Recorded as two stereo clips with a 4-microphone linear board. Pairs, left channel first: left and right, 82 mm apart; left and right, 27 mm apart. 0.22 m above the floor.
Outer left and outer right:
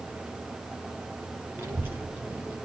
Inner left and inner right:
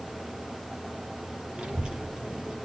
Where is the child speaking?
25° right (ahead or behind), 5.5 m; by 2.5 s 20° right (ahead or behind), 4 m.